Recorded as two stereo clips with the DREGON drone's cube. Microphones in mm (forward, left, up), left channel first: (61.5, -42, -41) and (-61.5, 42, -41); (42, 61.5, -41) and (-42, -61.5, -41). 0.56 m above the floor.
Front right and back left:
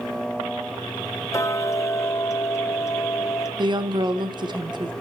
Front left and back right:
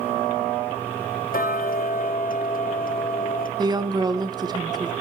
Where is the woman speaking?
170° right, 0.8 m.